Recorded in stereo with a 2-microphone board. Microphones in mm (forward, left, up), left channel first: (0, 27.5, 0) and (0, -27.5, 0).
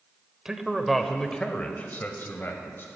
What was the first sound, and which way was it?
A man speaking, 15° right (ahead or behind).